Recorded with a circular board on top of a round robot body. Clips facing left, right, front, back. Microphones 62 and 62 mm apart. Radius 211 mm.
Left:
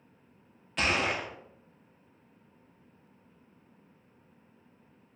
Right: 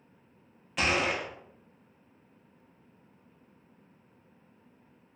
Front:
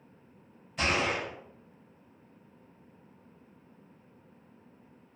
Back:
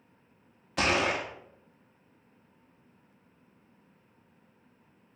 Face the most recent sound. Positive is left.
turn(degrees=-175)